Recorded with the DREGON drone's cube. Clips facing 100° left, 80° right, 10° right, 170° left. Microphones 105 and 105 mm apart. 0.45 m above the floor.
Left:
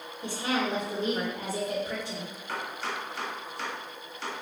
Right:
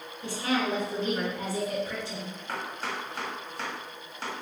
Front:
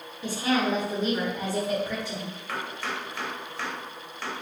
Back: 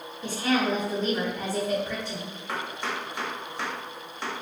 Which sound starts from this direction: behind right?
Chopping, at 2.5 s.